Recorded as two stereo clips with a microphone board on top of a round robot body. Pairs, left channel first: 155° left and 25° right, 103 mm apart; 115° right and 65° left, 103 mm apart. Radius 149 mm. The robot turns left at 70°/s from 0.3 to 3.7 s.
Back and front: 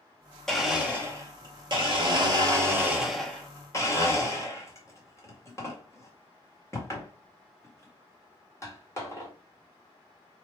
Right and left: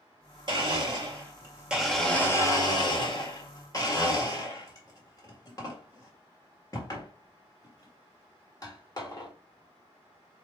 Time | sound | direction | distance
0.5 | a blender | 75° left | 2 m